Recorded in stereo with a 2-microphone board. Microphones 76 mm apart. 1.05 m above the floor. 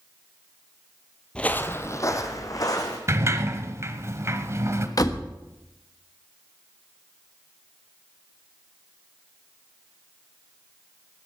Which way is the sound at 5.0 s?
50° left (ahead or behind).